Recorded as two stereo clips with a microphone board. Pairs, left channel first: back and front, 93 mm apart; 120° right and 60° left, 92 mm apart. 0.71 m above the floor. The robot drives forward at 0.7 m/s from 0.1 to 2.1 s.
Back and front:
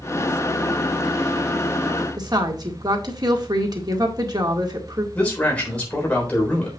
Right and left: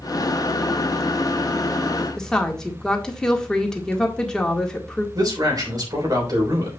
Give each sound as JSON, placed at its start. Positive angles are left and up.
{"t": 2.2, "sound": "a woman speaking", "azimuth_deg": -35, "distance_m": 1.8}
{"t": 5.2, "sound": "a man speaking", "azimuth_deg": 105, "distance_m": 3.5}